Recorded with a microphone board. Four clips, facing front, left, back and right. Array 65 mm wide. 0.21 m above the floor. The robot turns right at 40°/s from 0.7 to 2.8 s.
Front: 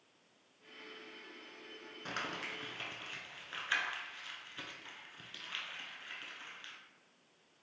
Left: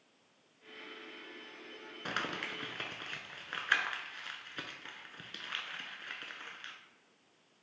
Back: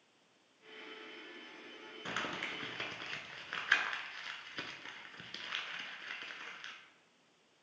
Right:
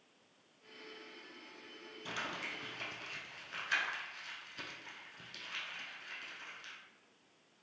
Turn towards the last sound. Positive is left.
turn(degrees=130)